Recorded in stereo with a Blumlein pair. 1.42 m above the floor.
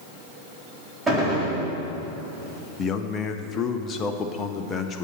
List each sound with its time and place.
1.1 s a gunshot: 10° right, 4 m
2.8 s a man speaking: 25° left, 0.7 m